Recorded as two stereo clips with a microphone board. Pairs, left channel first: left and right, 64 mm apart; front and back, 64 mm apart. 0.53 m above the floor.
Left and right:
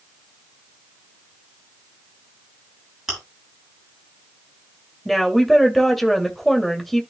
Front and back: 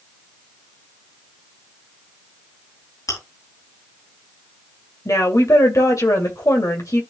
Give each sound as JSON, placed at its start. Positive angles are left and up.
{"t": 3.1, "sound": "chewing", "azimuth_deg": -5, "distance_m": 8.0}
{"t": 5.0, "sound": "a woman speaking", "azimuth_deg": 5, "distance_m": 2.5}